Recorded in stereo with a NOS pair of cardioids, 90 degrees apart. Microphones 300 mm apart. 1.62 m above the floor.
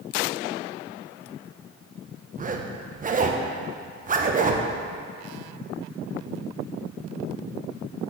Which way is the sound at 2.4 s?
25° right.